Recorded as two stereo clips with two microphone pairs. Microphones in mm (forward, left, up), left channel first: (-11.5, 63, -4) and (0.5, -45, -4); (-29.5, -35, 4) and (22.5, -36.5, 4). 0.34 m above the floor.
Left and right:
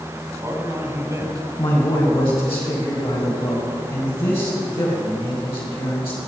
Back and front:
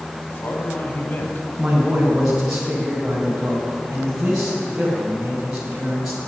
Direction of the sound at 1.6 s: 80° left.